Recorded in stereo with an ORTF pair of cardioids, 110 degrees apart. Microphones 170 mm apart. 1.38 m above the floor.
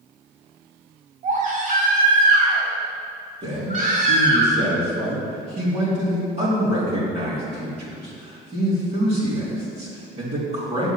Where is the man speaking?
40° right, 3.5 m.